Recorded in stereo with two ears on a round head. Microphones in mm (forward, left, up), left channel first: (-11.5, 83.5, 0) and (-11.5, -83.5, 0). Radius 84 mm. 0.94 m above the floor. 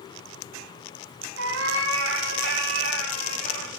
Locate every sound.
1.4 s a cat meowing: 80° right, 2 m